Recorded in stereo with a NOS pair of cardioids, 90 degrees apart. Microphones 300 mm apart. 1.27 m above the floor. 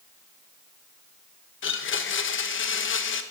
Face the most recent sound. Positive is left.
turn(degrees=45)